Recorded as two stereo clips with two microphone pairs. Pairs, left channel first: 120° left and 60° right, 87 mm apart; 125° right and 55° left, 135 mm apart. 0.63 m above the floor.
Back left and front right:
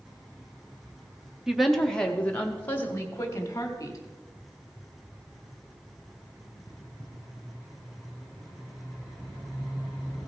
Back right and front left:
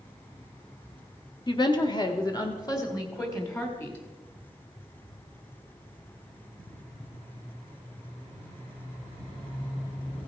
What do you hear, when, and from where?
1.5 s a woman speaking: 145° right, 1.3 m; by 4.0 s 170° left, 2.5 m